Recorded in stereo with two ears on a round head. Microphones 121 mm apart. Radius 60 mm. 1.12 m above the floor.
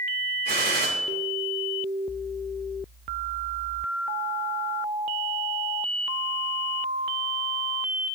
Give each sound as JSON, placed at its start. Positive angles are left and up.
{"t": 0.5, "sound": "a gunshot", "side_deg": -75, "distance_m": 2.0}